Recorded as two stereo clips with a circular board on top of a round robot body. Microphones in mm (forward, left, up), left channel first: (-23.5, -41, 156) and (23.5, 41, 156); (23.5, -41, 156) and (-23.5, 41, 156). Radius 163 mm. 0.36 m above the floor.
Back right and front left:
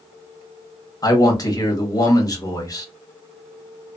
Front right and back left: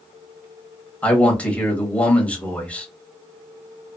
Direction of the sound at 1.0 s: 130° right.